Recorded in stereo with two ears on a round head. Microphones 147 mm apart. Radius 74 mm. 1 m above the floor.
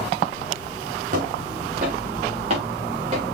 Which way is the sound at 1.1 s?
50° right (ahead or behind).